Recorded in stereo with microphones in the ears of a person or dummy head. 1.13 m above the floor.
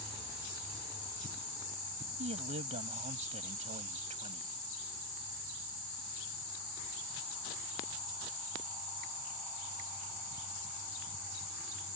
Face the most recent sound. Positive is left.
turn(degrees=-40)  # may be behind; listen again after turning